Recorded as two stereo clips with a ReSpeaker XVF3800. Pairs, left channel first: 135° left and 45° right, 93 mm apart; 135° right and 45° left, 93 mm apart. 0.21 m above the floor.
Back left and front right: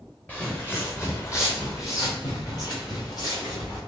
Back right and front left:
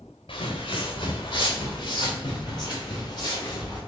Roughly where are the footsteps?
Behind right.